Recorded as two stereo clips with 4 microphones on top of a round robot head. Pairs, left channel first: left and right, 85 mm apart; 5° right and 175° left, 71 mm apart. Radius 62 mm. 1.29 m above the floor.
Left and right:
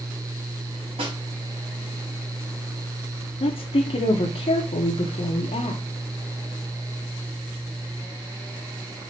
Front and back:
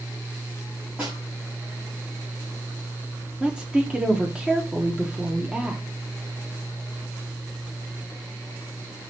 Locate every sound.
1.0 s a snare drum: 105° right, 4 m
3.4 s a woman speaking: 95° left, 1.2 m